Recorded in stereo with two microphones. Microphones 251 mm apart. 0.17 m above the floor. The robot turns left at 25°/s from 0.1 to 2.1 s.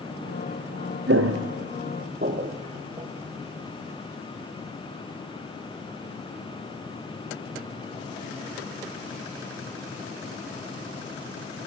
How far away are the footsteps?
About 0.6 m.